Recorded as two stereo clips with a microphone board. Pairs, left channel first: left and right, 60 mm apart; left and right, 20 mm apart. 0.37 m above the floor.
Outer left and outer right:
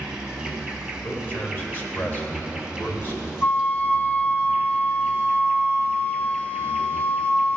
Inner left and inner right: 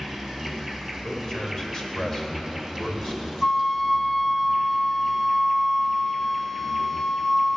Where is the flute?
25° left (ahead or behind), 0.6 m.